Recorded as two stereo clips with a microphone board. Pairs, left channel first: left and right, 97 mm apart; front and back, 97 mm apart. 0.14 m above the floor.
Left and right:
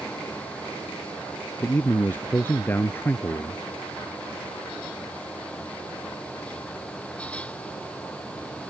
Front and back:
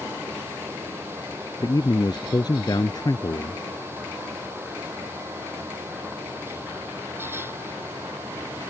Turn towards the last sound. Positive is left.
turn(degrees=30)